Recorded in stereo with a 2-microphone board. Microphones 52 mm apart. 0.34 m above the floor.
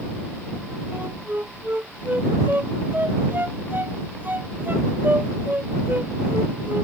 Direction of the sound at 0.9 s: 40° right (ahead or behind).